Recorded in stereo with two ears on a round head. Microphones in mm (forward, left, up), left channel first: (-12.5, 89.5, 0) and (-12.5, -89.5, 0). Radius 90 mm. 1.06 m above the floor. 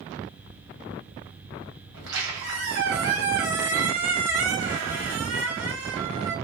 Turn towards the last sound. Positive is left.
turn(degrees=-60)  # may be behind; listen again after turning